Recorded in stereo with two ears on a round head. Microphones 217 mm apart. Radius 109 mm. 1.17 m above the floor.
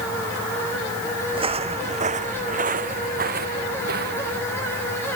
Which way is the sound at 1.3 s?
20° right (ahead or behind).